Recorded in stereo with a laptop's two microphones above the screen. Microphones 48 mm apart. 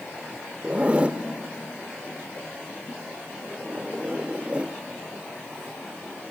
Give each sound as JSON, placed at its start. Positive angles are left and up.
{"t": 0.6, "sound": "a zipper", "side_deg": -25, "distance_m": 1.0}